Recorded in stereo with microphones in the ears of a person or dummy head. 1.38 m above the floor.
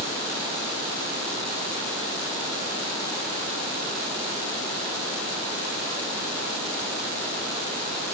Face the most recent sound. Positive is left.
No sound to turn to.